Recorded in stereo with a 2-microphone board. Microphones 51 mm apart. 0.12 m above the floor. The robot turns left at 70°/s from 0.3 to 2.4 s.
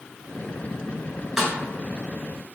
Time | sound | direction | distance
1.4 | a snare drum | 10° right (ahead or behind) | 0.5 m